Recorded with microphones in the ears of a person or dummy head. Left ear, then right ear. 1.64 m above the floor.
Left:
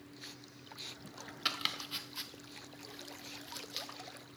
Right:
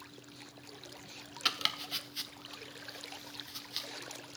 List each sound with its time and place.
1.4 s chopping: 10° right (ahead or behind), 0.7 m